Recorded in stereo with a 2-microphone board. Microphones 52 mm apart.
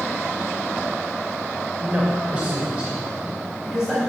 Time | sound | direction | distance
1.8 | a man speaking | 30° right (ahead or behind) | 2.5 m